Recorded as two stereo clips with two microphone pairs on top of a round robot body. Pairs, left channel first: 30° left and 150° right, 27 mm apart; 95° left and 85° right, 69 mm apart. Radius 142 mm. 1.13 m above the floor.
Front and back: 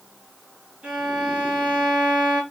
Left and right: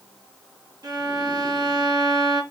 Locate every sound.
0.8 s a violin: 105° right, 2.5 m